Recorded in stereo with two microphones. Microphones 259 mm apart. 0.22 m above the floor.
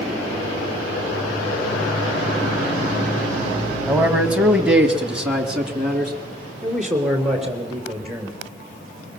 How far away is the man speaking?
About 1.6 m.